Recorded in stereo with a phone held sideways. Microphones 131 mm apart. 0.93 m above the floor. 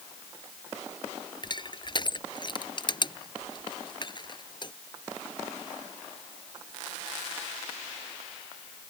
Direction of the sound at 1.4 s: 35° left (ahead or behind).